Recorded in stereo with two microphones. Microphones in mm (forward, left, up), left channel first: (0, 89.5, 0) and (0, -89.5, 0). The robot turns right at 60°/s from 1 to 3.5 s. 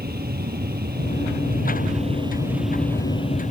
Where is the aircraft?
60° right (ahead or behind); by 3.5 s 45° left (ahead or behind).